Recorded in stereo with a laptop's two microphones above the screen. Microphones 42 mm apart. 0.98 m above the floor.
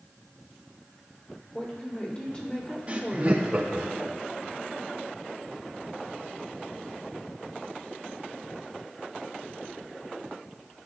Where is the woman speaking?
25° left (ahead or behind), 2.5 m.